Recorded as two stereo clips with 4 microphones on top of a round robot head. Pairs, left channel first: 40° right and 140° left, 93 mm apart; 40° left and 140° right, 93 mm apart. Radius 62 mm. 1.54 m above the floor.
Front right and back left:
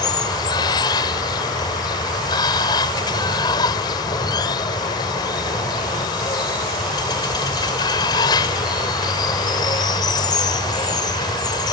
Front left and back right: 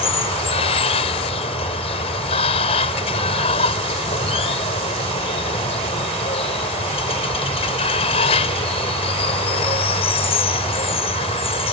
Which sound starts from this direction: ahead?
Running water, at 0.0 s.